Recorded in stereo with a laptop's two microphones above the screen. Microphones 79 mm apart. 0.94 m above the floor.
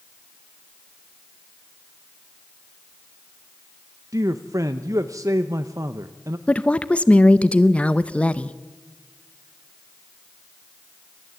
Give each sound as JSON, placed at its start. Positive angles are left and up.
{"t": 4.1, "sound": "a man speaking", "side_deg": -40, "distance_m": 0.8}
{"t": 6.5, "sound": "a woman speaking", "side_deg": 15, "distance_m": 0.5}